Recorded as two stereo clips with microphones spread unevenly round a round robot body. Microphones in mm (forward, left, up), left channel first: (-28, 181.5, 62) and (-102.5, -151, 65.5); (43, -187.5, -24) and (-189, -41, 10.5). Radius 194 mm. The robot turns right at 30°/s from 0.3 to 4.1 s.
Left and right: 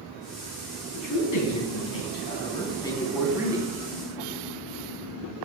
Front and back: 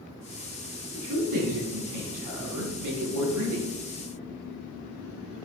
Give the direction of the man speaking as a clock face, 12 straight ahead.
9 o'clock.